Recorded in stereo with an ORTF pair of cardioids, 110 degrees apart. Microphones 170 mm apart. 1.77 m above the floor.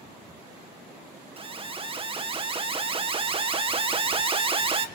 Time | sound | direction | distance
1.4 | an alarm | 35° right | 2 m